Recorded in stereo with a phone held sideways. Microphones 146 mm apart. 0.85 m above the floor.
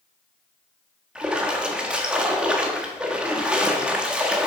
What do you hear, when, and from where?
1.1 s a splash: 5° right (ahead or behind), 1.5 m